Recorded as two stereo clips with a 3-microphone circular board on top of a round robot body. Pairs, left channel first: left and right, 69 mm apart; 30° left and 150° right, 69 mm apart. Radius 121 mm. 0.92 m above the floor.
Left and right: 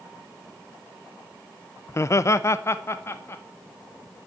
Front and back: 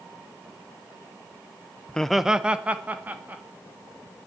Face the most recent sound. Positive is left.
turn(degrees=145)